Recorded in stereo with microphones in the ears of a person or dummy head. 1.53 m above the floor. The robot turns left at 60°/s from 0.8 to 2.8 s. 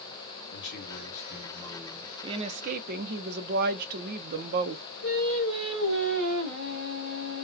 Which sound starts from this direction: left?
A man speaking, at 0.5 s.